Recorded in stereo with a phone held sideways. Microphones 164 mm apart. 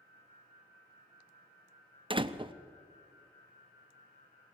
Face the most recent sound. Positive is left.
turn(degrees=-30)  # may be behind; listen again after turning